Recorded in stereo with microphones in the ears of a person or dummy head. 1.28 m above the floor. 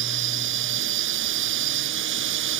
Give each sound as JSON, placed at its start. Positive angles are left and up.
{"t": 0.0, "sound": "a drone", "side_deg": -70}